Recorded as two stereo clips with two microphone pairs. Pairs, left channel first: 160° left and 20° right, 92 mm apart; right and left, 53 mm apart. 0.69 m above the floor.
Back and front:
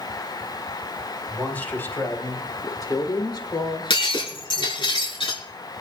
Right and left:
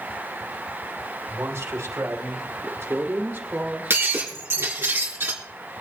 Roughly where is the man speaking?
Left.